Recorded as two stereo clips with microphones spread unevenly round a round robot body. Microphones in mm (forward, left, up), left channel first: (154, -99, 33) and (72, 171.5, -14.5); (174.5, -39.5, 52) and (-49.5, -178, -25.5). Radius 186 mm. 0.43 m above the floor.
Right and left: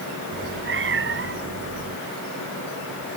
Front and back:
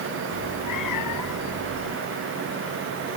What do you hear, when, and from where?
0.3 s a cat meowing: 60° left